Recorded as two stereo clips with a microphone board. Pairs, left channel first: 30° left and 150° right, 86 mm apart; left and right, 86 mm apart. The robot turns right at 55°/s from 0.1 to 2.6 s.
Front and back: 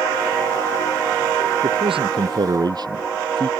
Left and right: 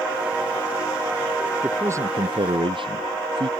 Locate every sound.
1.6 s a man speaking: 165° right; by 3.5 s 110° right